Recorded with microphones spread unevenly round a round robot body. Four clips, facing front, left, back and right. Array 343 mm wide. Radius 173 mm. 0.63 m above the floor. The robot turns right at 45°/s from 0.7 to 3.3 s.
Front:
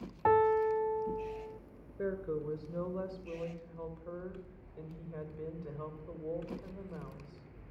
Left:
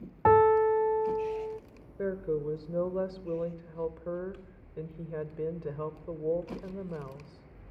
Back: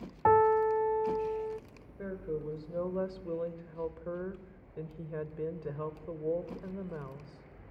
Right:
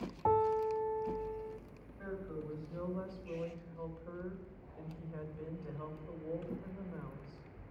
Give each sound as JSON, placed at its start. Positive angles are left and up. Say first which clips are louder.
{"t": 0.2, "sound": "a piano", "louder": "left 10 dB, back 3 dB", "azimuth_deg": 115, "distance_m": 0.5}
{"t": 2.0, "sound": "a woman speaking", "louder": "left 12 dB, front 1 dB", "azimuth_deg": 70, "distance_m": 2.5}